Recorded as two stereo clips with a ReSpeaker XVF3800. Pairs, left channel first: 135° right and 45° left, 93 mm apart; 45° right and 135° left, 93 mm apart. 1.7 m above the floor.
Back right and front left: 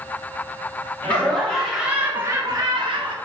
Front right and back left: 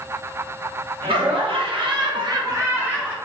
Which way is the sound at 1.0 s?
150° left.